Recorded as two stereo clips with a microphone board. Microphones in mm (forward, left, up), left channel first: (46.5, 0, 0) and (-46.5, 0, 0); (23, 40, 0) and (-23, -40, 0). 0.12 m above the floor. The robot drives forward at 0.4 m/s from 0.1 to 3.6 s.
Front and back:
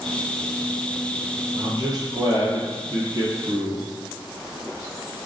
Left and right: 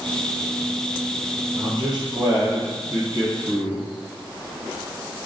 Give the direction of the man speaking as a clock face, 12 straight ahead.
5 o'clock.